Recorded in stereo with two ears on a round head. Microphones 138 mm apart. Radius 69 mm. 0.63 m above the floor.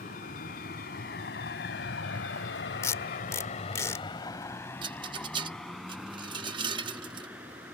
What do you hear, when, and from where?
0.0 s a vehicle: 55° left (ahead or behind); by 7.8 s 10° right (ahead or behind)
2.8 s tape being pulled: 20° left (ahead or behind)
4.8 s a rattle: 30° right (ahead or behind)